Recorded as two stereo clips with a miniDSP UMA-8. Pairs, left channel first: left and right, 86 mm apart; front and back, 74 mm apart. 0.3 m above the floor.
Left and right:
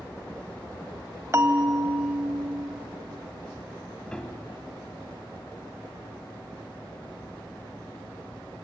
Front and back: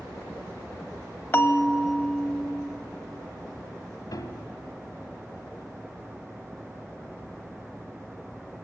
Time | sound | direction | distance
1.3 | a bell | 50° right | 1.1 m
4.1 | a piano | 10° left | 1.0 m